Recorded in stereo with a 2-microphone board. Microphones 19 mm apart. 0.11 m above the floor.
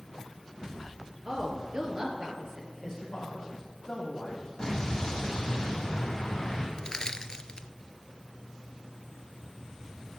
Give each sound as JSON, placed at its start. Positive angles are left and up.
{"t": 1.2, "sound": "a woman speaking", "side_deg": -40, "distance_m": 2.0}
{"t": 2.8, "sound": "a man speaking", "side_deg": 30, "distance_m": 4.5}
{"t": 4.6, "sound": "an explosion", "side_deg": 25, "distance_m": 5.5}
{"t": 6.8, "sound": "crushing", "side_deg": 40, "distance_m": 0.6}